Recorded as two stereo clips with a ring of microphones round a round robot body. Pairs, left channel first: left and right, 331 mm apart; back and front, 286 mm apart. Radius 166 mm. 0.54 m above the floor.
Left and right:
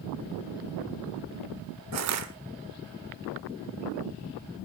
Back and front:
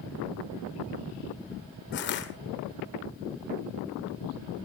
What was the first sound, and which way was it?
Crushing, 125° right.